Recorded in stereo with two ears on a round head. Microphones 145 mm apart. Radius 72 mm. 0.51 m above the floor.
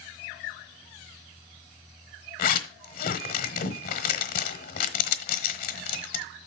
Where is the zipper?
60° left (ahead or behind), 1.1 m.